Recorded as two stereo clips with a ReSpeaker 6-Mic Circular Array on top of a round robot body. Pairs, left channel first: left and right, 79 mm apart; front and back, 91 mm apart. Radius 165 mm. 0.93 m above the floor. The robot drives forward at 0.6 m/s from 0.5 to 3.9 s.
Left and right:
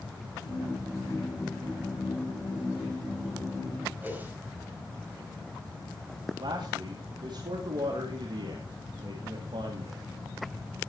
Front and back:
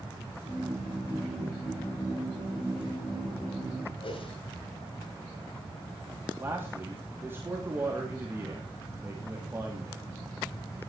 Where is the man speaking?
115° right, 2.5 m.